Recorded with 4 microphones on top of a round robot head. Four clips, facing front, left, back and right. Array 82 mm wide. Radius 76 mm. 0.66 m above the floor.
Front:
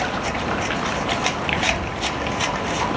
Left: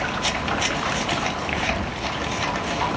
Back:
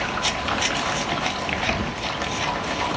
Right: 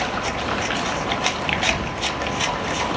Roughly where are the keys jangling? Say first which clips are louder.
Right 2 dB, front 1 dB; behind.